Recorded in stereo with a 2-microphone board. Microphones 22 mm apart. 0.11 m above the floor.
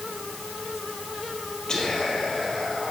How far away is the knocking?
I don't hear knocking.